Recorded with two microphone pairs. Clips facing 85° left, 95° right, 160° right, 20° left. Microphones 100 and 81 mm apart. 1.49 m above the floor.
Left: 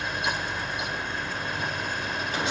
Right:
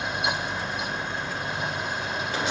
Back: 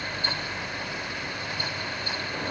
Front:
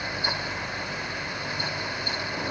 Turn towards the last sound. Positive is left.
No sound to turn to.